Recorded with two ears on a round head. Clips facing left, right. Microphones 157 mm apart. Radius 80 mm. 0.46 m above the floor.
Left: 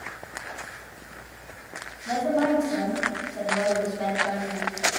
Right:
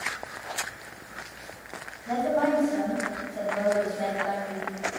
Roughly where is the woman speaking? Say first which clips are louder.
Left 1 dB; centre.